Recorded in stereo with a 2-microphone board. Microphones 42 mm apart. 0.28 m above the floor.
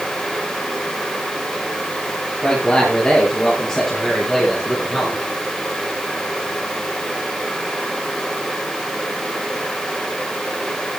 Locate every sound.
2.4 s a man speaking: 15° left (ahead or behind), 6.5 m; by 5.3 s 10° right (ahead or behind), 8 m